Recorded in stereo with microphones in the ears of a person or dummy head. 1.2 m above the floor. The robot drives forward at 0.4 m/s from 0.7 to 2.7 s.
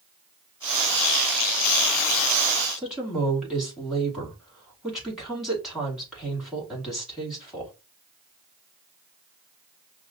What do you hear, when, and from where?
2.8 s a woman speaking: 5° right (ahead or behind), 2.5 m